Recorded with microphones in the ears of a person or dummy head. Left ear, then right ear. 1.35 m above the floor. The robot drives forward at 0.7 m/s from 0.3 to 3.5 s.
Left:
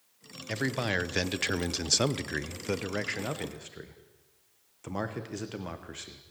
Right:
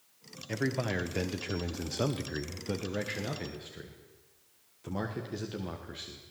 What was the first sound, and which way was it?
A man speaking, 35° left (ahead or behind).